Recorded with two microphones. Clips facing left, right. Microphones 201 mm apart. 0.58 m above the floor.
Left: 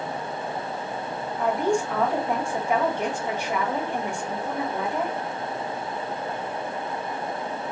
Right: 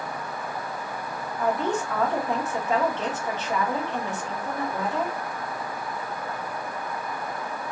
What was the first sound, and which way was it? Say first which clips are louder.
A woman speaking: left 2 dB; 10° left (ahead or behind).